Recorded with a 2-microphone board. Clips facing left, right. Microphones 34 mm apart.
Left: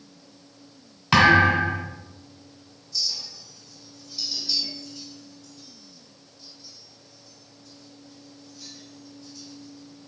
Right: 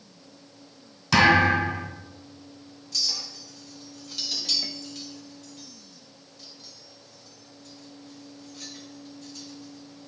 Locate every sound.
1.1 s a thud: 30° left (ahead or behind), 2.5 m
2.9 s a clink: 70° right (ahead or behind), 0.8 m